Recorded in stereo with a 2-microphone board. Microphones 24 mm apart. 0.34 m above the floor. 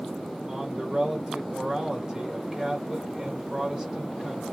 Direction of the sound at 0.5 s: 35° right (ahead or behind).